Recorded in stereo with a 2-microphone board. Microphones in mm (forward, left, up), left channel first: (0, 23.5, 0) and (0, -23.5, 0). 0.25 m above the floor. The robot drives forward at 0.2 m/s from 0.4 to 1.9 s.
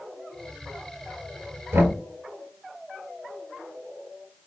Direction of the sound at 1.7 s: 75° right (ahead or behind).